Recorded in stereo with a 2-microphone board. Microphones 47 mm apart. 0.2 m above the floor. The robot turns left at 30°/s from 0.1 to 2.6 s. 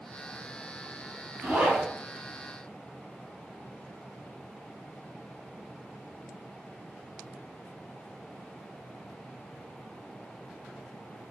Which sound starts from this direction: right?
A zipper, at 1.4 s.